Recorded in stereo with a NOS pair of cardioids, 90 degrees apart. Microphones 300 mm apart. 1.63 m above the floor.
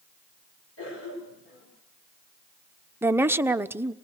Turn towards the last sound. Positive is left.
turn(degrees=-5)